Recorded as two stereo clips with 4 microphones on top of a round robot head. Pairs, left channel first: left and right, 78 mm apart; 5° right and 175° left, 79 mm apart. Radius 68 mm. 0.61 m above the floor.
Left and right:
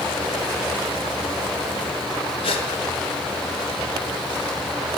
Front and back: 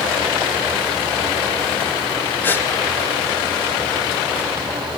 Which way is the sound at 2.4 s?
60° left.